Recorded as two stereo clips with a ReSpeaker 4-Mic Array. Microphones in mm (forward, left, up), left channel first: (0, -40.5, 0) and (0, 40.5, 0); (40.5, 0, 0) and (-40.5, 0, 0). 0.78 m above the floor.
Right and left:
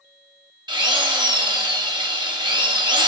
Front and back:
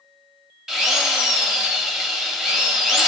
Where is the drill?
100° left, 0.8 m.